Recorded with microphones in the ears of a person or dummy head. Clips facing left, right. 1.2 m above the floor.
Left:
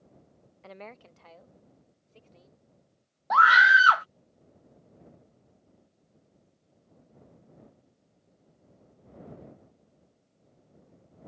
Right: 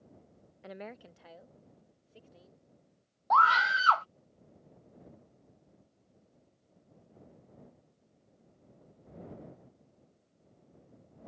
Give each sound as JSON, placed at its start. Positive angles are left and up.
{"t": 0.6, "sound": "a woman speaking", "side_deg": -10}
{"t": 3.3, "sound": "a scream", "side_deg": 25}